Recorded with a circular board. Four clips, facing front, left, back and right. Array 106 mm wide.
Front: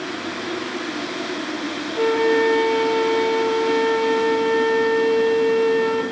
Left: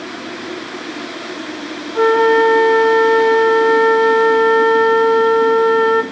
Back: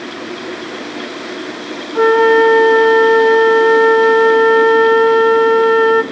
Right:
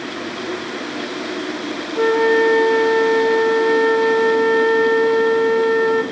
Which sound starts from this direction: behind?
A flute, at 1.9 s.